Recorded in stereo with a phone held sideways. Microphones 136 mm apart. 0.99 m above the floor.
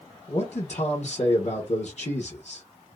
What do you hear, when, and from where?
0.3 s a man speaking: 50° left (ahead or behind), 0.8 m